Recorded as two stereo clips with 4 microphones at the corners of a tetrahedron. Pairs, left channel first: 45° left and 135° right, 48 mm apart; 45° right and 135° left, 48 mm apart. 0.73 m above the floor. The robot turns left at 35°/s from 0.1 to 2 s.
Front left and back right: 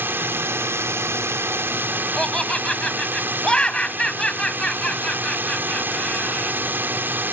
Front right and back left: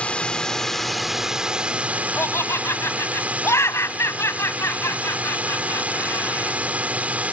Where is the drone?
105° right; by 7.3 s 170° right.